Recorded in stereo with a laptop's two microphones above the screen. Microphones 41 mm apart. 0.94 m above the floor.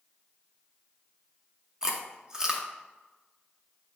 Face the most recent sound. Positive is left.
turn(degrees=-15)  # may be behind; listen again after turning